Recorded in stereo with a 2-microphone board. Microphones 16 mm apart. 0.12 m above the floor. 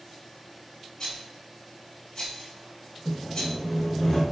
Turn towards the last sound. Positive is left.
turn(degrees=35)  # may be behind; listen again after turning